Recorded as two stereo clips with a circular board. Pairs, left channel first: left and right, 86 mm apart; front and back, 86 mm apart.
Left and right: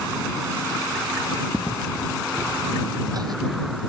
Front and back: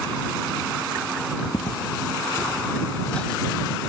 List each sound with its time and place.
1.5 s footsteps: 5° left; by 3.9 s 90° right